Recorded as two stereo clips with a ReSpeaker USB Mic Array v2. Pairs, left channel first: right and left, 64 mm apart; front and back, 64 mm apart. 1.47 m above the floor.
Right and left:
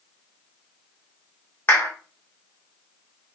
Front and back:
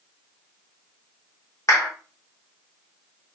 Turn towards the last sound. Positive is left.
turn(degrees=-40)